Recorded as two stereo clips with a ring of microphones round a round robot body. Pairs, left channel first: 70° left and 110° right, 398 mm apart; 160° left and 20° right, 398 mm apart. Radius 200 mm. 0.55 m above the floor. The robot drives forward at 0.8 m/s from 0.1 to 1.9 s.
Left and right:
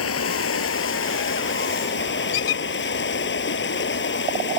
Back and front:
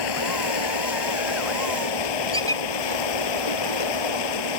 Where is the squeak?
75° left.